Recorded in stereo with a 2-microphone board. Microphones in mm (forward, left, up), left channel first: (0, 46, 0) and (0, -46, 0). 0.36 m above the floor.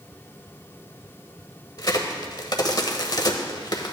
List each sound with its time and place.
1.8 s a crack: 45° left (ahead or behind), 1.0 m